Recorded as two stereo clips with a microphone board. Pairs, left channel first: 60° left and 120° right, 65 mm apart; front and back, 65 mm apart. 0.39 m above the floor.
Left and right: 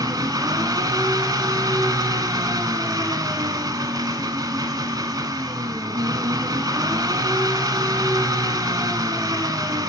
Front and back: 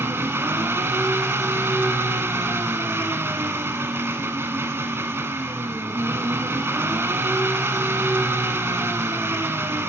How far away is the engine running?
About 1.1 m.